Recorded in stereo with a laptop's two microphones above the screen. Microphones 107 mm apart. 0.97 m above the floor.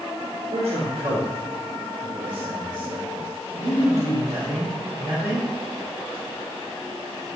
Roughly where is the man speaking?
Right.